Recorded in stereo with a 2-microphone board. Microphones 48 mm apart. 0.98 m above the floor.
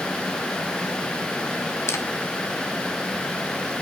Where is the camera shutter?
65° left (ahead or behind), 1.1 m.